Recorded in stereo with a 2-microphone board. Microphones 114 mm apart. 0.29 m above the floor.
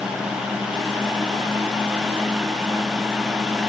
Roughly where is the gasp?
No gasp in this recording.